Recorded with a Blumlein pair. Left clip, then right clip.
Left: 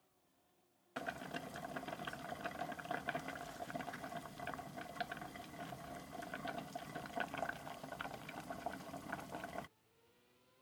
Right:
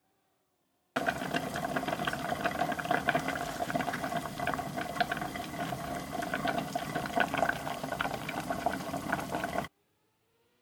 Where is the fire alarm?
No fire alarm in this recording.